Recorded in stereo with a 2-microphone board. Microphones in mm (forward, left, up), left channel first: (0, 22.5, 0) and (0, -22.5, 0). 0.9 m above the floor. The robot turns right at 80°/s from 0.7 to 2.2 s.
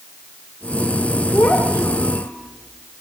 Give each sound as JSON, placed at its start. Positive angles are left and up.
{"t": 1.3, "sound": "a child speaking", "azimuth_deg": 50, "distance_m": 2.0}